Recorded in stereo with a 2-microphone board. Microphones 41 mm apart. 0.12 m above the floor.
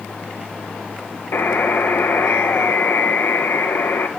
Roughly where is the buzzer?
Left.